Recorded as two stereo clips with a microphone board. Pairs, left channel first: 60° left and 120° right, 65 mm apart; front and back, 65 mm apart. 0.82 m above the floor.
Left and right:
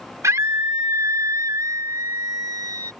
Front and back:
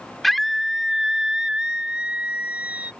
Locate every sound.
0.2 s a scream: 90° right; by 2.9 s 115° right